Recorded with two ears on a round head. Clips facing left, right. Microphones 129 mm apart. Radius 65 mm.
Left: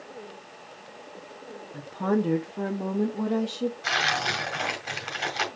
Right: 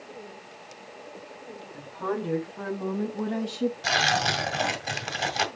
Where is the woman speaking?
55° left (ahead or behind), 1.6 m; by 3.7 s 10° right (ahead or behind), 1.2 m.